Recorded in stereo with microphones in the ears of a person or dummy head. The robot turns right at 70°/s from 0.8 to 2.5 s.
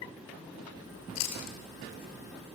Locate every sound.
1.1 s chewing: 75° left (ahead or behind), 2.5 m; by 2.6 s 10° left (ahead or behind), 2.5 m